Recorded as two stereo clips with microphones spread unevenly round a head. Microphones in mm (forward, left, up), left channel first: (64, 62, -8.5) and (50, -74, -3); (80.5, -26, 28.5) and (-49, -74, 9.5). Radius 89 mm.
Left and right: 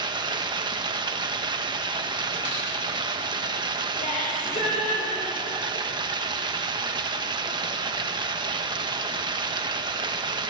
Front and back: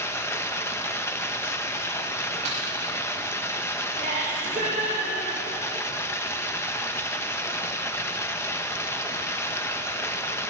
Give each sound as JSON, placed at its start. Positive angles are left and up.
{"t": 0.0, "sound": "running water", "azimuth_deg": -45, "distance_m": 1.4}
{"t": 2.5, "sound": "a snare drum", "azimuth_deg": 140, "distance_m": 8.5}
{"t": 4.0, "sound": "laughter", "azimuth_deg": 140, "distance_m": 6.0}